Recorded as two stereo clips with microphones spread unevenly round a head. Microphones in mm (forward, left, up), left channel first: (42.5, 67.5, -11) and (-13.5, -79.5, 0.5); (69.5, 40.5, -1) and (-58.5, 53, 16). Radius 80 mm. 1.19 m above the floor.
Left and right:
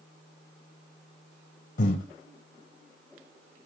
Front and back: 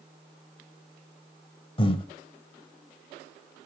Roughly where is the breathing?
Ahead left.